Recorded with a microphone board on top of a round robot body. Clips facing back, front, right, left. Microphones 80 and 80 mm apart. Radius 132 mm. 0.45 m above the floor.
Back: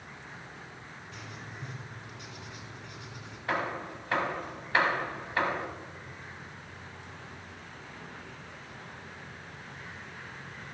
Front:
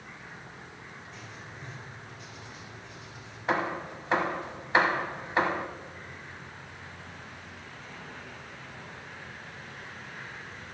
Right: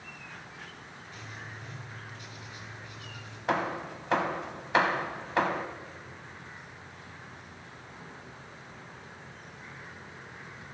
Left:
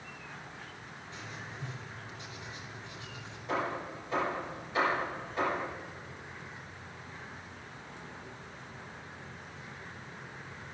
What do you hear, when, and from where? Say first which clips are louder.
1.1 s writing: back 1 dB, even; 155° left, 2.5 m
3.5 s hammering: front 3 dB, right 4 dB; 70° right, 0.8 m